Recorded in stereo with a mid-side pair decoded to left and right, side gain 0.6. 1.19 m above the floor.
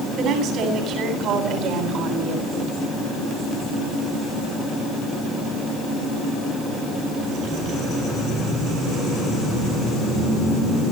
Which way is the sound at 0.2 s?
65° right.